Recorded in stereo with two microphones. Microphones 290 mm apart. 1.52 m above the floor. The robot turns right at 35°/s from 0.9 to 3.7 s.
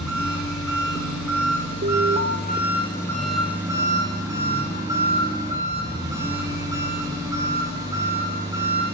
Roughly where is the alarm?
Right.